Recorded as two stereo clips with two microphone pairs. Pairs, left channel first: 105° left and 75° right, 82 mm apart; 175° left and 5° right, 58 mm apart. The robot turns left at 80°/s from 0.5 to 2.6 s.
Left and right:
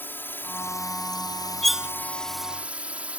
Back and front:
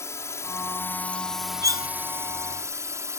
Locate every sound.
0.0 s a drone: 160° left; by 3.2 s 5° right
1.6 s cutlery clinking: 15° left; by 1.9 s 5° right